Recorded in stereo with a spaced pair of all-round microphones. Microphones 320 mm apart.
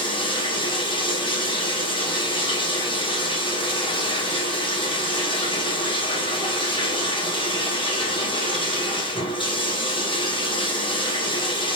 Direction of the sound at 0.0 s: 15° left (ahead or behind).